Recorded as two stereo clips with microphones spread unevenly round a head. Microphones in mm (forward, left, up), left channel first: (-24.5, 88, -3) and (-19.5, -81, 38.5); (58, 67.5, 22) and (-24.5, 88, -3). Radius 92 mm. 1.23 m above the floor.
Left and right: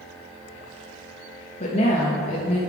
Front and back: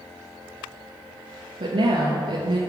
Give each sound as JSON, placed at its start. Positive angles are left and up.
{"t": 1.6, "sound": "a woman speaking", "azimuth_deg": 145, "distance_m": 1.1}